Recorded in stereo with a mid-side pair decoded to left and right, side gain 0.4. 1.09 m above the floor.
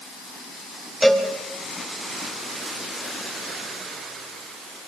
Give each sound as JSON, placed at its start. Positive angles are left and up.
{"t": 1.0, "sound": "a cowbell", "azimuth_deg": 10, "distance_m": 4.5}